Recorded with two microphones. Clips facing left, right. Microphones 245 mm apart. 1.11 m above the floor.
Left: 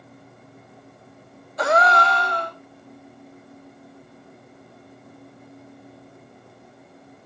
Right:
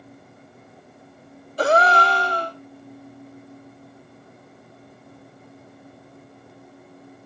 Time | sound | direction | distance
1.6 | a gasp | 35° right (ahead or behind) | 0.6 m